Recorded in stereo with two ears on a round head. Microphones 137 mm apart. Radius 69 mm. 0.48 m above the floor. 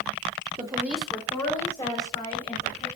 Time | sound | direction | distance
0.6 | a woman speaking | 30° right (ahead or behind) | 1.1 m